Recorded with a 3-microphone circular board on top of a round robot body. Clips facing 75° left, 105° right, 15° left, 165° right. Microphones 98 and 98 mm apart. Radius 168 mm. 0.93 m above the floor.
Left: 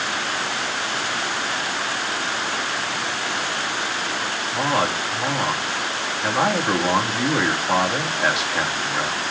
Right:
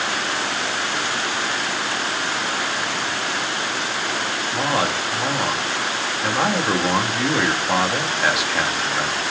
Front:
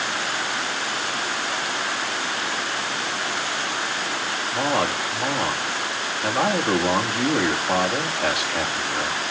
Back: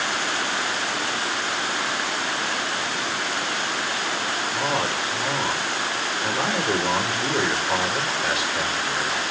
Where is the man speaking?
15° right, 2.5 m.